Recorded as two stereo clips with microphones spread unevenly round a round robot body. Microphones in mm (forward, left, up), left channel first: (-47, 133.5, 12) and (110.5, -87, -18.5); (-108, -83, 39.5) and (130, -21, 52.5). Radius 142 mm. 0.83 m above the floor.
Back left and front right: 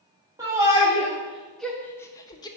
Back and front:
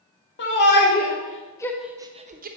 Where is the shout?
130° right, 1.3 m; by 2.5 s 50° left, 0.8 m.